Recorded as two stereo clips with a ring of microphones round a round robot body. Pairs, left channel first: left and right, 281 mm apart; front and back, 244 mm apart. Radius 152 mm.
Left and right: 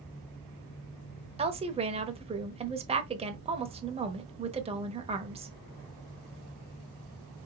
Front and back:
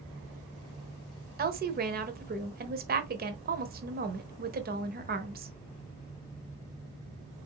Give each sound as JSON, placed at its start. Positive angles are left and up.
{"t": 1.4, "sound": "a woman speaking", "azimuth_deg": -150, "distance_m": 1.1}